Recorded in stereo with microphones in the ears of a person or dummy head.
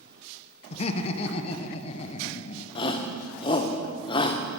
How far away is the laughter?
About 0.8 m.